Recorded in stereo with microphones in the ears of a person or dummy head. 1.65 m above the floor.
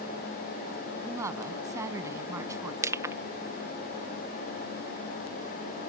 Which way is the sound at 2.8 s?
15° right (ahead or behind).